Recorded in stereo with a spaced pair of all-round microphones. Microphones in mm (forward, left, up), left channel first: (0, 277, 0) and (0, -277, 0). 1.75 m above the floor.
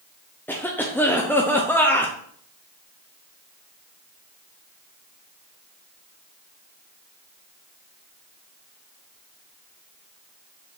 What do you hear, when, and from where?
0.5 s a cough: 5° left (ahead or behind), 0.6 m